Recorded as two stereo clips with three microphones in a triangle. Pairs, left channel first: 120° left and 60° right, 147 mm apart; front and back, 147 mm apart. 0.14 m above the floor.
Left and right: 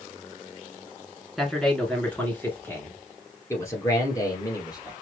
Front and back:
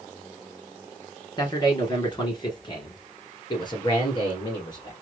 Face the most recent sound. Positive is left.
turn(degrees=55)